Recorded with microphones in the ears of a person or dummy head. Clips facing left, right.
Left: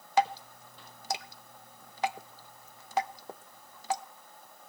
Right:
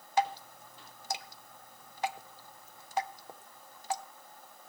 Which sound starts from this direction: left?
Dripping, at 0.2 s.